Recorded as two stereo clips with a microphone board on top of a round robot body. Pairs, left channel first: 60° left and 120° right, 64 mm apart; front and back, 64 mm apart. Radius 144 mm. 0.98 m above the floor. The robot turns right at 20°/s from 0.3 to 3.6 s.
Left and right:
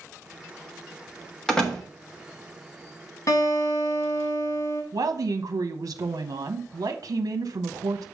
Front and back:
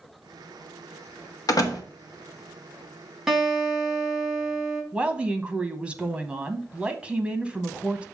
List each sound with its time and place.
1.5 s a door slam: 25° right, 1.6 m; by 1.8 s 15° right, 1.6 m
3.3 s a guitar: 90° left, 2.5 m; by 4.8 s 100° left, 2.5 m
4.9 s a woman speaking: 105° right, 1.0 m